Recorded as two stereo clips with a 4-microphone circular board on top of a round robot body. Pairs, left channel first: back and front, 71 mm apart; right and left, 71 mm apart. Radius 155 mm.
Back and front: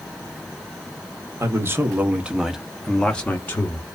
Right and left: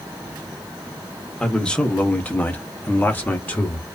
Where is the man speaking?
15° right, 1.1 m; by 3.9 s 145° right, 1.1 m.